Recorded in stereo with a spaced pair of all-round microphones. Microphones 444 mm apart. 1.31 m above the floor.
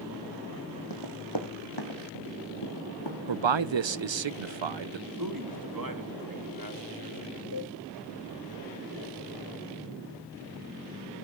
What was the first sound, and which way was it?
Running footsteps, 65° left (ahead or behind).